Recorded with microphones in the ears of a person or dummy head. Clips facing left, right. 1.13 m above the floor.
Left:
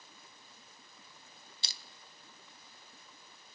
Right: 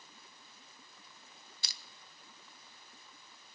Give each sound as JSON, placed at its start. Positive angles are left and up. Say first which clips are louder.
{"t": 1.6, "sound": "crushing", "louder": "left 2 dB", "side_deg": 25, "distance_m": 0.9}